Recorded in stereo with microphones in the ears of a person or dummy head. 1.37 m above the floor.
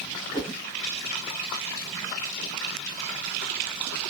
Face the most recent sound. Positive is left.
turn(degrees=-15)  # may be behind; listen again after turning